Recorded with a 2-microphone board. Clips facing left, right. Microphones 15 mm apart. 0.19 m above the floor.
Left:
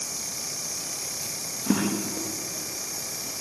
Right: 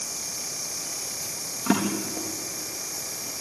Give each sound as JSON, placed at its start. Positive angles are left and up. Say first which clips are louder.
{"t": 1.7, "sound": "a drawer", "louder": "right 1 dB", "side_deg": -80, "distance_m": 4.0}